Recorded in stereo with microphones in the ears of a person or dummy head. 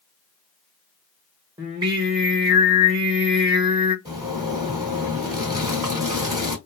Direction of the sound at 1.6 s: 25° right (ahead or behind).